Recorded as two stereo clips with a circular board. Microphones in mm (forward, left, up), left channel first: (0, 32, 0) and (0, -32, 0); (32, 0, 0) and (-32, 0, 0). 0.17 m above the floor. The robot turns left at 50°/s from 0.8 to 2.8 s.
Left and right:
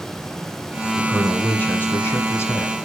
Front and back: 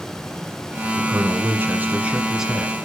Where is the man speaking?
175° left, 1.4 m; by 2.7 s 85° left, 1.4 m.